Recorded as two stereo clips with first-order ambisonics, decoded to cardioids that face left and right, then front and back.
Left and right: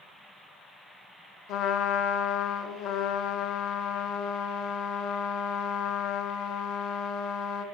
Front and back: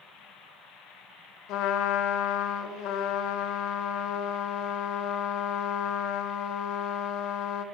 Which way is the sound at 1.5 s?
45° left.